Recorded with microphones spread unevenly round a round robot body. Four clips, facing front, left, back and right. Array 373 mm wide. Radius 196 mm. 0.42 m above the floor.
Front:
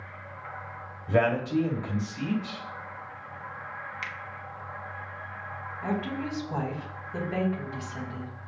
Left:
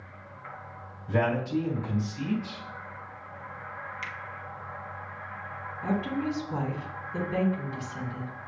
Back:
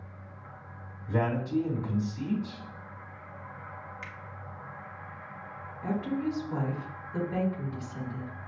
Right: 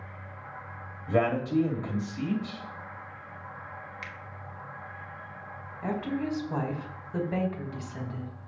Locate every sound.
1.1 s a man speaking: 35° right, 2 m
4.0 s a finger snap: 20° right, 1.0 m
5.8 s a woman speaking: 70° right, 2 m